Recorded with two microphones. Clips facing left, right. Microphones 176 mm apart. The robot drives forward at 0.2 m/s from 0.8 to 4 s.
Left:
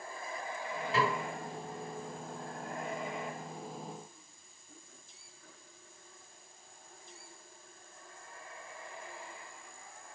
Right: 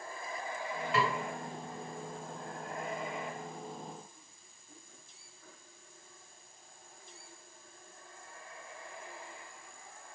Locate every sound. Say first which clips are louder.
0.9 s a snare drum: left 1 dB; 35° left (ahead or behind), 1.8 m